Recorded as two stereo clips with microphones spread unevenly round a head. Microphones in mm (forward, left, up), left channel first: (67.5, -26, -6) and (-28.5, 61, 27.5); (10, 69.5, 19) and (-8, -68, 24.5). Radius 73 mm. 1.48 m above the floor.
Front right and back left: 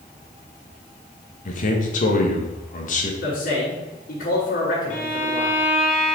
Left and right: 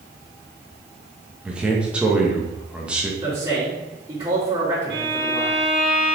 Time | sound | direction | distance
1.4 | a man speaking | 15° right | 1.7 m
3.2 | a man speaking | 35° right | 3.5 m
4.9 | a violin | 80° right | 2.5 m